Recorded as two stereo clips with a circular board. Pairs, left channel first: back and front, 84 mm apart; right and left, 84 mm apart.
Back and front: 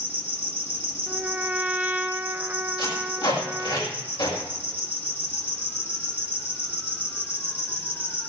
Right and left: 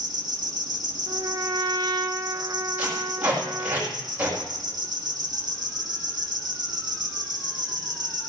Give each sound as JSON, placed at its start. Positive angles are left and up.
{"t": 0.0, "sound": "an insect", "azimuth_deg": 120, "distance_m": 2.5}
{"t": 1.1, "sound": "a trumpet", "azimuth_deg": 70, "distance_m": 0.9}
{"t": 2.8, "sound": "tape being pulled", "azimuth_deg": 160, "distance_m": 6.5}